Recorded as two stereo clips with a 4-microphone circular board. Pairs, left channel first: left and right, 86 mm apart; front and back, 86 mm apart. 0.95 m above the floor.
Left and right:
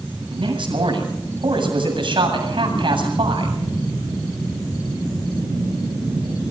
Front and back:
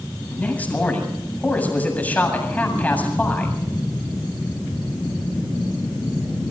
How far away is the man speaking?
About 7.5 m.